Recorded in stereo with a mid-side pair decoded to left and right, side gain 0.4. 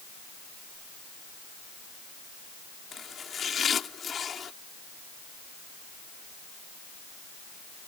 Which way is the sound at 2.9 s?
50° left.